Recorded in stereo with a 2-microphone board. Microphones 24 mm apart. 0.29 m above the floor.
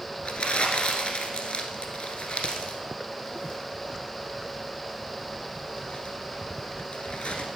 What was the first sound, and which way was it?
Crumpling, 55° left (ahead or behind).